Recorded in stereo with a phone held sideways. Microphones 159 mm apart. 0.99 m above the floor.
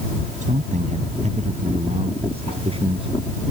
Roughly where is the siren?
I don't hear a siren.